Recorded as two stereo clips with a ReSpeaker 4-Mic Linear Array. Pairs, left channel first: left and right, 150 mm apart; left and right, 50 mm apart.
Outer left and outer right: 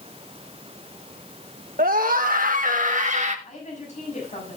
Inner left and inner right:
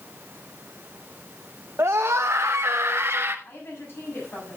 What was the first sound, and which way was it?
A scream, 75° right (ahead or behind).